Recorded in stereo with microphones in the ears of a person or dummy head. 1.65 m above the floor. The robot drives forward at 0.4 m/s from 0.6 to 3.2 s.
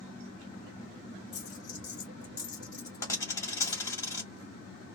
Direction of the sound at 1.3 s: 25° left (ahead or behind).